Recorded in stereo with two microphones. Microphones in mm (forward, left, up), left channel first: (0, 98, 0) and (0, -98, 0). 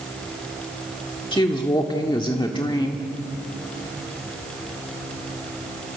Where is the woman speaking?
25° left (ahead or behind), 1.6 m.